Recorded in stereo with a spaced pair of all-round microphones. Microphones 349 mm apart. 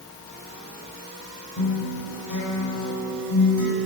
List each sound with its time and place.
1.6 s a guitar: 55° left (ahead or behind), 5 m